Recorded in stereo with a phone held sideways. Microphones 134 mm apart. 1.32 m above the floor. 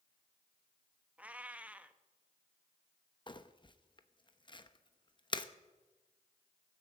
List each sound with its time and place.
1.2 s a cat meowing: 10° right (ahead or behind), 0.7 m
3.3 s crumpling: 35° left (ahead or behind), 0.7 m